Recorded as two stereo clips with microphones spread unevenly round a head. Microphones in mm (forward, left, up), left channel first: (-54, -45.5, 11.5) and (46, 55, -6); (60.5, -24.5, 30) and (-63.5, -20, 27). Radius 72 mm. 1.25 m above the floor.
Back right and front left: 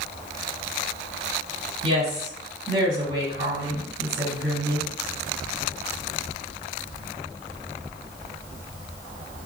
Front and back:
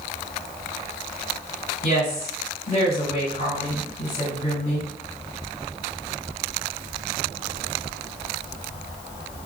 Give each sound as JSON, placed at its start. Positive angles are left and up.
{"t": 1.8, "sound": "a woman speaking", "azimuth_deg": -5, "distance_m": 1.9}